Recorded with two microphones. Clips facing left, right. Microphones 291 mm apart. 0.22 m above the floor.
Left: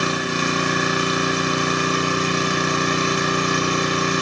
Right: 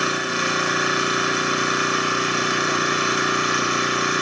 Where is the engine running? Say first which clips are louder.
Left 3 dB; 45° left (ahead or behind), 1.4 m.